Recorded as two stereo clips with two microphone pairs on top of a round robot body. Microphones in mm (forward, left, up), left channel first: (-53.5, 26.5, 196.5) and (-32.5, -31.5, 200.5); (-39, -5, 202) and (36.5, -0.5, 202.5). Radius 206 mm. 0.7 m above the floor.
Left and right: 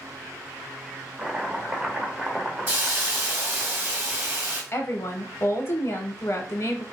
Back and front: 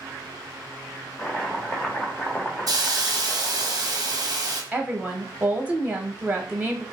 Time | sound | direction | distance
1.2 | chopping | 130° right | 1.1 m
2.7 | a hiss | 10° right | 1.2 m
4.7 | a woman speaking | 75° left | 0.8 m